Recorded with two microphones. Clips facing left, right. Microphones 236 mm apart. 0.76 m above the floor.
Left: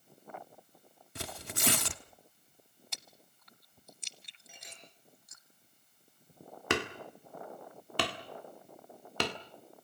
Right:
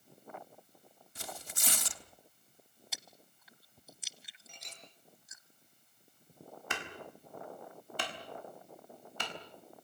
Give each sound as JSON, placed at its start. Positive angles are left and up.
{"t": 1.1, "sound": "tearing paper", "side_deg": 70, "distance_m": 1.1}
{"t": 2.9, "sound": "chewing", "side_deg": -5, "distance_m": 0.7}
{"t": 4.5, "sound": "a clink", "side_deg": 5, "distance_m": 6.5}
{"t": 6.7, "sound": "hammering", "side_deg": 75, "distance_m": 1.6}